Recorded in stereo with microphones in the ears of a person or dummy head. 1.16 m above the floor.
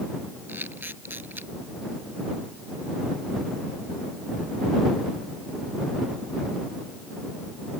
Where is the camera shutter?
15° right (ahead or behind).